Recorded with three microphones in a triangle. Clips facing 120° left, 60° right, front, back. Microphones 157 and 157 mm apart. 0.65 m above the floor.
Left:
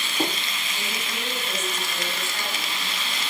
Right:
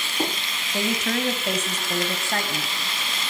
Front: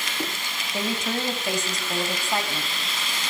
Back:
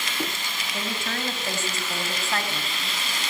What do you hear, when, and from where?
0.7 s a woman speaking: 70° right, 3.5 m; by 2.7 s 75° right, 4.5 m